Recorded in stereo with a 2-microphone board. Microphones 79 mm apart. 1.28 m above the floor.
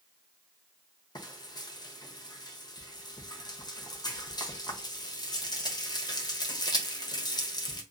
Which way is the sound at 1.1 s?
60° left (ahead or behind).